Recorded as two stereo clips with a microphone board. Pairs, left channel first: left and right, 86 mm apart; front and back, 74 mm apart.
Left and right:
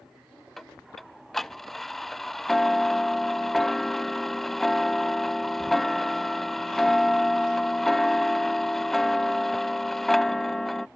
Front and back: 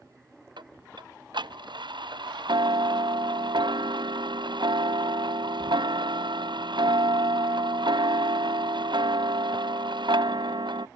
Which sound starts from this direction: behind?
Ticking, at 0.6 s.